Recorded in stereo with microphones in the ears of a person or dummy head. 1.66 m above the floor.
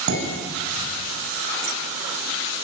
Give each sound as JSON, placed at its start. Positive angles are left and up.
{"t": 0.1, "sound": "dishes clattering", "side_deg": -85, "distance_m": 8.0}